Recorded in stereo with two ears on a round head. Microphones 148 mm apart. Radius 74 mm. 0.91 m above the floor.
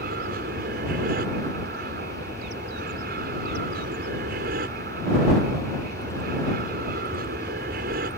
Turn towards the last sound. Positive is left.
turn(degrees=-60)  # may be behind; listen again after turning